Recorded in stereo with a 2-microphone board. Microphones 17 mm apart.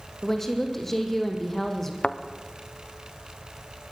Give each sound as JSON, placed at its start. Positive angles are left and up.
{"t": 0.2, "sound": "a woman speaking", "side_deg": 15, "distance_m": 4.0}
{"t": 2.0, "sound": "a thud", "side_deg": 85, "distance_m": 1.6}